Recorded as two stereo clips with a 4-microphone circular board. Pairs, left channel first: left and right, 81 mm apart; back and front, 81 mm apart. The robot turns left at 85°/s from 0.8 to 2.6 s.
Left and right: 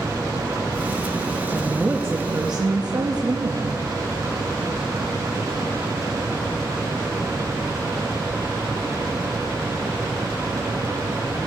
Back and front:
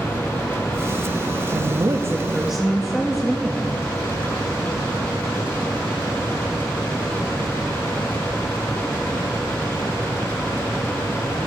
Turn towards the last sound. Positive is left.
turn(degrees=-90)